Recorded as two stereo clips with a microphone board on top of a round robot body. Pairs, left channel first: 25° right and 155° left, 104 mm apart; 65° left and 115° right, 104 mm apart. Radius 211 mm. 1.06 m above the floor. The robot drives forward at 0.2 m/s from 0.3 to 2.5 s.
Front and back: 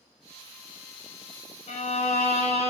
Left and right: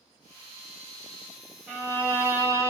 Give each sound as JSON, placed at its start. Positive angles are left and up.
{"t": 1.7, "sound": "a violin", "azimuth_deg": -40, "distance_m": 1.1}